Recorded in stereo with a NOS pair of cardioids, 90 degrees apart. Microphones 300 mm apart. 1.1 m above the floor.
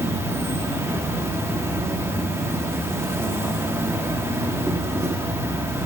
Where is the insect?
10° right, 1.1 m.